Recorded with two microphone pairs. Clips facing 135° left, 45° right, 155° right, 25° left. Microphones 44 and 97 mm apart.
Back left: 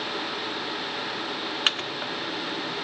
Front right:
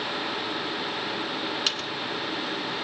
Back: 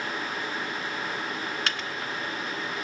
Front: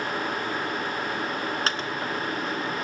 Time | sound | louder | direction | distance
1.7 | a microwave | back left 2 dB, front 4 dB | 80° left | 1.3 m